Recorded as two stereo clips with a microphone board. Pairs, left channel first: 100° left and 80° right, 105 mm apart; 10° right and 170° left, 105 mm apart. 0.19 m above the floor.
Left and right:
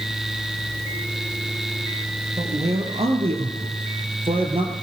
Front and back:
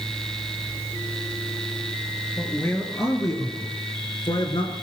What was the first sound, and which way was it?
A man speaking, 80° right.